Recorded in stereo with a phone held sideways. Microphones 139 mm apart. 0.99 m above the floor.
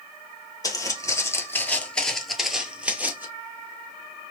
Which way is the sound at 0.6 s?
25° left (ahead or behind).